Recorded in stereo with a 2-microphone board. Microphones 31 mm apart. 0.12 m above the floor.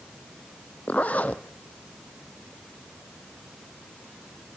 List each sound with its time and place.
0.9 s a zipper: 55° left (ahead or behind), 1.4 m